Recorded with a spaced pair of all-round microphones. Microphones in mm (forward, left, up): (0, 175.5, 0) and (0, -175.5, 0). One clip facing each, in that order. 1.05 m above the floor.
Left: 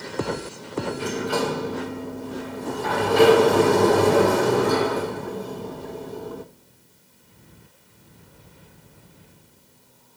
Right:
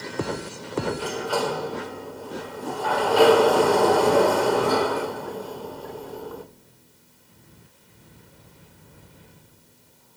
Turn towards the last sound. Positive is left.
turn(degrees=30)  # may be behind; listen again after turning